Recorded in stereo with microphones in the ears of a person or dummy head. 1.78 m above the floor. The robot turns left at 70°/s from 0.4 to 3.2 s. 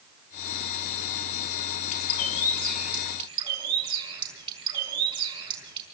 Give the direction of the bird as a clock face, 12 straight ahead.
10 o'clock.